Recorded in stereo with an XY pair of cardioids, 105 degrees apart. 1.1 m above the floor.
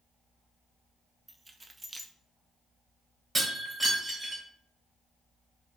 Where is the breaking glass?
20° right, 2.5 m.